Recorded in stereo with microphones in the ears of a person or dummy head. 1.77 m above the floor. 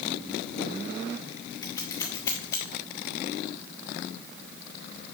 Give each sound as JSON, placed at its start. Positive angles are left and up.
{"t": 1.6, "sound": "scissors", "side_deg": 15, "distance_m": 0.7}